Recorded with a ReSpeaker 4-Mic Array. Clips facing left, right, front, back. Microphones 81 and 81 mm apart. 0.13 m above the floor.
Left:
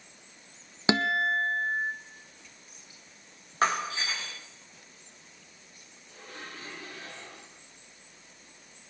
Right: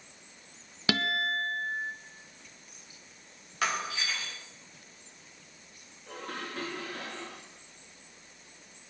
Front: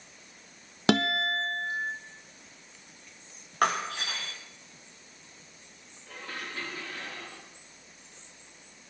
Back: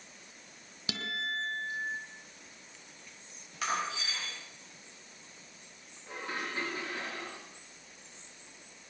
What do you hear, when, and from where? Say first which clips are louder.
0.9 s a guitar: left 4 dB, front 12 dB; 25° left, 1.0 m
3.6 s breaking glass: left 4 dB, front 6 dB; 35° left, 7.5 m
6.1 s dishes clattering: right 6 dB, back 2 dB; 110° right, 9.5 m